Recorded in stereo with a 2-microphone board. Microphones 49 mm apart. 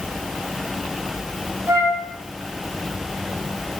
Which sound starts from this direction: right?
A flute, at 1.7 s.